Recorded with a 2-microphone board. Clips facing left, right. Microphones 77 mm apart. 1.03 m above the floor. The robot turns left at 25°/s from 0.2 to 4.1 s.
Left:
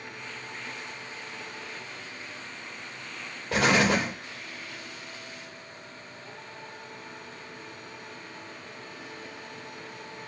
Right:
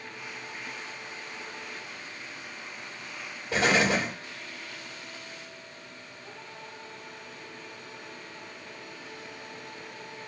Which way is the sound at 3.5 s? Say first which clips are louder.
Left 1 dB; 80° left.